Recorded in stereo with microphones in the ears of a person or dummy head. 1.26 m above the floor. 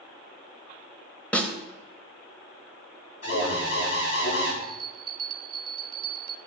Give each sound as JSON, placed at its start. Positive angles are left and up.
{"t": 1.3, "sound": "a snare drum", "side_deg": 10, "distance_m": 1.4}
{"t": 3.2, "sound": "an alarm", "side_deg": 85, "distance_m": 7.5}
{"t": 4.6, "sound": "a bell", "side_deg": -25, "distance_m": 1.0}